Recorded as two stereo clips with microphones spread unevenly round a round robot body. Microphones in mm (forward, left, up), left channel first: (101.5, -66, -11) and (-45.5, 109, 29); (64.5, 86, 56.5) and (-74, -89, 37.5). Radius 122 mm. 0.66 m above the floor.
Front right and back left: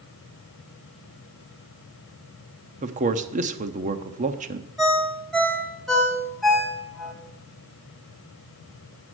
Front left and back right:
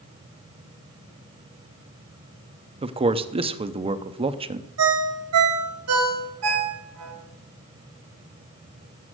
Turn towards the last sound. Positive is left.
turn(degrees=-140)